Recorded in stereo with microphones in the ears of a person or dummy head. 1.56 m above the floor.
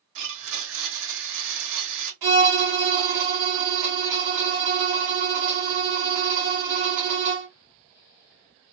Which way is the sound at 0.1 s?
65° right (ahead or behind).